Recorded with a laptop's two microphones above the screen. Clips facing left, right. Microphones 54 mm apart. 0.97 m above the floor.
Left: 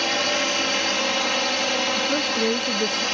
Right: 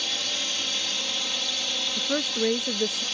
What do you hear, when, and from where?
0.0 s a drone: 60° left (ahead or behind)
2.0 s a woman speaking: 5° right (ahead or behind)